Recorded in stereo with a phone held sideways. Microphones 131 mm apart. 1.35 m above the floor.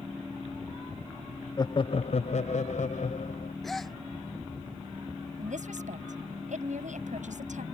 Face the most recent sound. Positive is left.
turn(degrees=-85)